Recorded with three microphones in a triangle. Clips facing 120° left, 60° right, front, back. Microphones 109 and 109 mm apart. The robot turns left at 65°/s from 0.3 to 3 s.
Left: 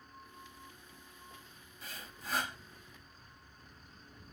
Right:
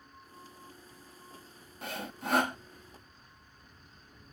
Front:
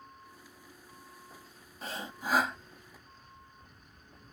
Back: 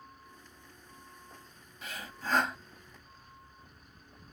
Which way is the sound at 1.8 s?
45° right.